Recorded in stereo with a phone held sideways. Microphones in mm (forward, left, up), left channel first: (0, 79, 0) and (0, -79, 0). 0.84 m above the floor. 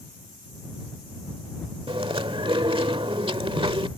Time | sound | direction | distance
1.9 | chewing | 35° right (ahead or behind) | ?